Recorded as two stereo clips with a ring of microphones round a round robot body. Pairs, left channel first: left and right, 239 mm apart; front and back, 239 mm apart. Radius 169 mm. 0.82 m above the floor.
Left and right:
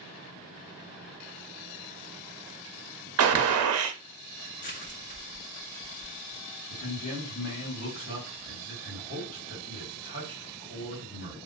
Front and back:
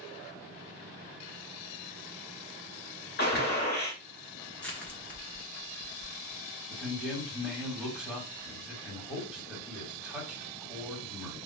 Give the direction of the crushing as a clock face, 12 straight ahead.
9 o'clock.